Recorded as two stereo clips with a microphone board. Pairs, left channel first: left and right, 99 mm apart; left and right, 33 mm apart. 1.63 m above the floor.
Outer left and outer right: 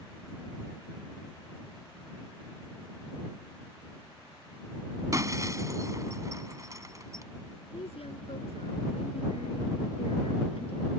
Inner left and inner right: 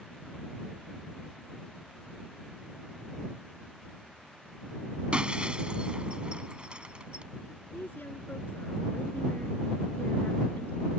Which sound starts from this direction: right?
Breaking glass, at 5.1 s.